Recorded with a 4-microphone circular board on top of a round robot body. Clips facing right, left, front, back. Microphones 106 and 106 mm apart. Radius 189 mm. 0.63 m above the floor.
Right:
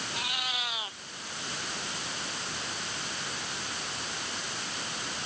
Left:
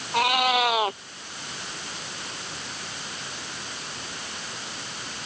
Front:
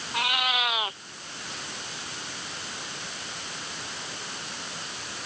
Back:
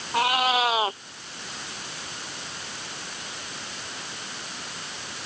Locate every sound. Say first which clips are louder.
0.1 s a cat meowing: left 20 dB, back 6 dB; 120° left